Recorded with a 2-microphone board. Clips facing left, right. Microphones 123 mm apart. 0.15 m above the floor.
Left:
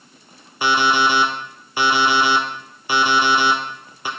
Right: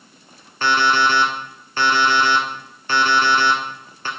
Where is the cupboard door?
I don't hear a cupboard door.